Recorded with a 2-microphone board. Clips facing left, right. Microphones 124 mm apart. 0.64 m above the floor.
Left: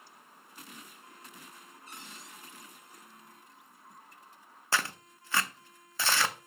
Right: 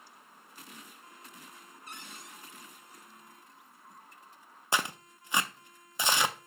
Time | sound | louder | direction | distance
1.9 | a cupboard door | right 2 dB | 75° right (ahead or behind) | 2 m
4.7 | tearing paper | right 1 dB | 20° right (ahead or behind) | 0.5 m